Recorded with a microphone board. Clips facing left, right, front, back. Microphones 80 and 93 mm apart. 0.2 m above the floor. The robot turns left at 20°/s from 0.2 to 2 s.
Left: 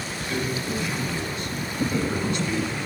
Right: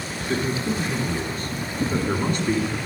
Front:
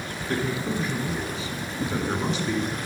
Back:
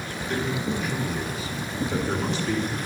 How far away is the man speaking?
About 2 m.